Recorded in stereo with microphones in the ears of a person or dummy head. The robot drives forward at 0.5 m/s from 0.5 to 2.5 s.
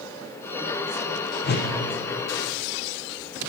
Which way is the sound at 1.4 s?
50° left (ahead or behind).